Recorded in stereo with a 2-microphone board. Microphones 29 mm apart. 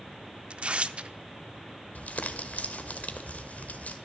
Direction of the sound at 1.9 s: 65° left (ahead or behind).